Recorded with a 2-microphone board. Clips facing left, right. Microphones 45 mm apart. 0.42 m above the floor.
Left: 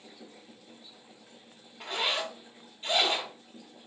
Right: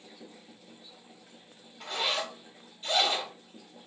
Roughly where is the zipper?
Left.